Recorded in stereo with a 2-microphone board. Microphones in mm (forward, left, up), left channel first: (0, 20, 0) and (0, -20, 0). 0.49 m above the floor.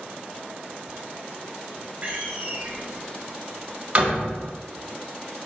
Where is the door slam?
30° right (ahead or behind), 2.0 m.